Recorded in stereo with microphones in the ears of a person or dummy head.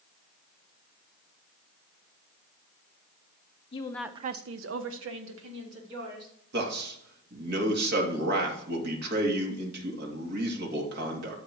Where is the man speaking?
60° right (ahead or behind), 2.5 m.